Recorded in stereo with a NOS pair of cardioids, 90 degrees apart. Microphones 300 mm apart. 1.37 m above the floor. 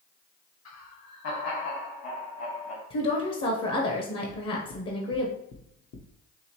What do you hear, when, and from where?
0.7 s laughter: 55° left, 1.2 m; by 2.8 s 65° left, 2.5 m
2.9 s a woman speaking: 50° left, 0.9 m
4.3 s knocking: 65° left, 0.8 m